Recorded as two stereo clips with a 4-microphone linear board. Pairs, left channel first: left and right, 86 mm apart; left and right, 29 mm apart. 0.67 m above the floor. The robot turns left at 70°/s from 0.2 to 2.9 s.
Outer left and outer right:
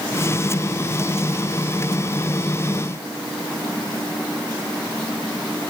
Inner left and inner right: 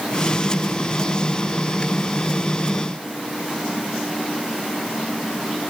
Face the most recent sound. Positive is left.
No sound to turn to.